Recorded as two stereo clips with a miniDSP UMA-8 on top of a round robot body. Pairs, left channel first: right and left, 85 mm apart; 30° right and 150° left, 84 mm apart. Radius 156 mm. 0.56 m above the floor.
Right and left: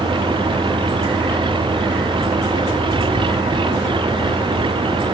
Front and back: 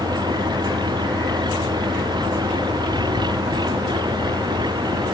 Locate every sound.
0.0 s an engine running: 115° left